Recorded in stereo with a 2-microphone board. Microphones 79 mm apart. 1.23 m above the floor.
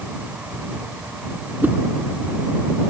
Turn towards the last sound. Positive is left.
turn(degrees=-20)  # may be behind; listen again after turning